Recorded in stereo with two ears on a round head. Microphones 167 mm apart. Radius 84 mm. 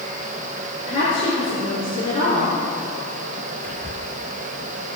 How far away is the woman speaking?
About 5 m.